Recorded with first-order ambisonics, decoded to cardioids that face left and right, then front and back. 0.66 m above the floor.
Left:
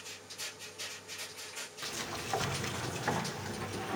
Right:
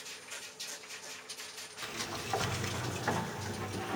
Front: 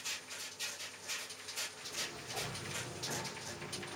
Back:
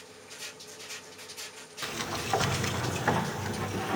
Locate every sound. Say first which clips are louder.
1.8 s a sliding door: right 1 dB, back 9 dB; straight behind, 0.7 m